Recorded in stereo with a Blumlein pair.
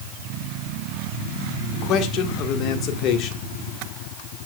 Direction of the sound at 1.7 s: 35° left.